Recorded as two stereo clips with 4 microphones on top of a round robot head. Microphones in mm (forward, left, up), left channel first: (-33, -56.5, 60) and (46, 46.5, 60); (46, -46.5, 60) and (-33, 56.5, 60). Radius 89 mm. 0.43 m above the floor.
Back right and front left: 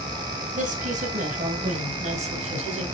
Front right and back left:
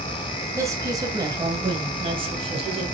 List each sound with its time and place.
0.6 s a woman speaking: 60° left, 3 m; by 2.9 s 90° left, 3.5 m